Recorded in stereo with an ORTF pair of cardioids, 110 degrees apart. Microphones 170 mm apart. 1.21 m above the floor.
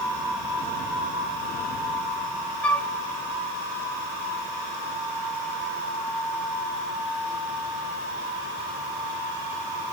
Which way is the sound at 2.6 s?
5° left.